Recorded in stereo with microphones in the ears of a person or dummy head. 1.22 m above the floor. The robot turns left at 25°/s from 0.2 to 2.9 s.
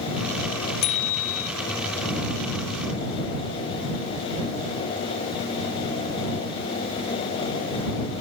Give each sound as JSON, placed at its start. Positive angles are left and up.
{"t": 0.8, "sound": "a bicycle bell", "side_deg": 70}